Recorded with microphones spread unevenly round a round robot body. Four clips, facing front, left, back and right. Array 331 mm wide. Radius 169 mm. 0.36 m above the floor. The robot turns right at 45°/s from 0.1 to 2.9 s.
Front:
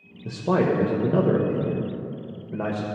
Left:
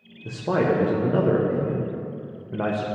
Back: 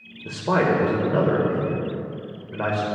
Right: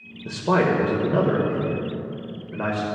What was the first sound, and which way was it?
A man speaking, 55° right.